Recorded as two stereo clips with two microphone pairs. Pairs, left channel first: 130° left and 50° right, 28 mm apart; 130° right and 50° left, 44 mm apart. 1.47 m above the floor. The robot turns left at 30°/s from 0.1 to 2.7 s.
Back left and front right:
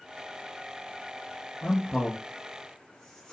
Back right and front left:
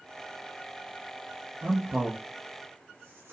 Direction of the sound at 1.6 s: 100° left.